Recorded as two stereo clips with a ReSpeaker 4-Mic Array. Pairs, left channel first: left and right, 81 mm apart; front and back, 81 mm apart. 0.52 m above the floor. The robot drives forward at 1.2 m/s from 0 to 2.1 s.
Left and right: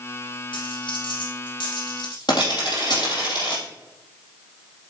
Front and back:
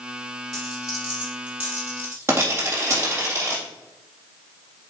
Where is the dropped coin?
90° left, 3 m; by 3.6 s 120° left, 3.5 m.